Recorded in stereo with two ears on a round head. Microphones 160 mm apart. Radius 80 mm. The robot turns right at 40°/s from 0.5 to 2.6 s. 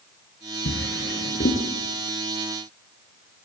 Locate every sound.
0.7 s a drawer: 75° left (ahead or behind), 7 m; by 1.6 s 35° left (ahead or behind), 7 m